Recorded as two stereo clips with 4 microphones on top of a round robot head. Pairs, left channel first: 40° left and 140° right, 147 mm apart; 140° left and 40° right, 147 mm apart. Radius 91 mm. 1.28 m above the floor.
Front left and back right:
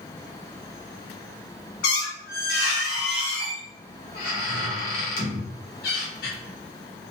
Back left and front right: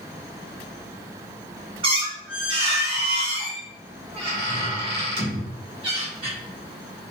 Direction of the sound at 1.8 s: 20° left.